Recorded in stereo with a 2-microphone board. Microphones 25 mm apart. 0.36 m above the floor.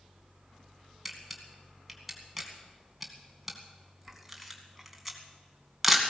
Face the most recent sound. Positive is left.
turn(degrees=0)  # may be behind; listen again after turning